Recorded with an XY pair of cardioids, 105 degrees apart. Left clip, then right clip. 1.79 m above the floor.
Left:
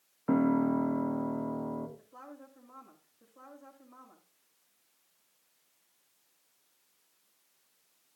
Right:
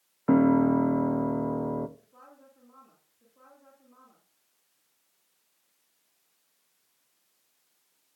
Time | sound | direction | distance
0.3 | a piano | 40° right | 1.2 m
2.0 | a woman speaking | 40° left | 9 m